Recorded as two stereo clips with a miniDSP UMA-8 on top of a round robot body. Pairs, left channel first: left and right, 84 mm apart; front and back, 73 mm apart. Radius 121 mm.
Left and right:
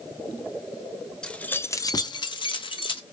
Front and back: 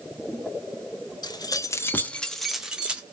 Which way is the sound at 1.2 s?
10° left.